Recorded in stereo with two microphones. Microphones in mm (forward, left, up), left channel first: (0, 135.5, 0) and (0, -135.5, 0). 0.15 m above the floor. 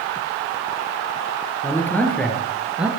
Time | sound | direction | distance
1.6 | a man speaking | 10° left (ahead or behind) | 3.5 m